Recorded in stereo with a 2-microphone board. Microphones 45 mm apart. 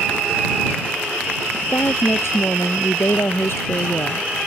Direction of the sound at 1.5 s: 70° left (ahead or behind).